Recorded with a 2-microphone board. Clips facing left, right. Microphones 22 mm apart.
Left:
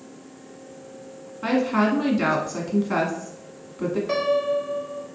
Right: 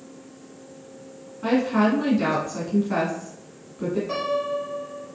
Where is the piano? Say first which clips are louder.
Left 3 dB; 25° left (ahead or behind), 1.3 m.